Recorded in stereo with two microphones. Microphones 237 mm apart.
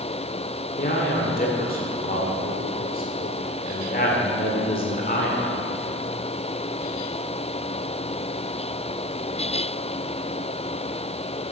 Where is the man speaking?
40° left (ahead or behind), 1.7 m.